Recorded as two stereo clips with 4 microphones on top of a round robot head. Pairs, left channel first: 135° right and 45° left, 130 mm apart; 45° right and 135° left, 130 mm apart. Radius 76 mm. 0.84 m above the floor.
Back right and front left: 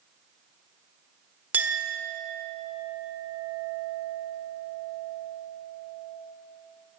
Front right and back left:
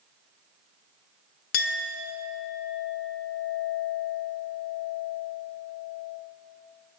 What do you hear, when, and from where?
1.5 s a clink: 35° right, 1.3 m